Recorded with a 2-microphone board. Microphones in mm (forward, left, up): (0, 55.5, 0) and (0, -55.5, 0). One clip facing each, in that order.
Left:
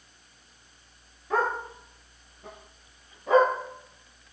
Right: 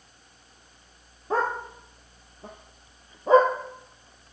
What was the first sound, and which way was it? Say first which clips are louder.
A dog barking: right 1 dB; 30° right (ahead or behind).